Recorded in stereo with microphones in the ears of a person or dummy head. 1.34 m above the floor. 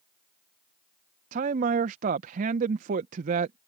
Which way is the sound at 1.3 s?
50° right (ahead or behind).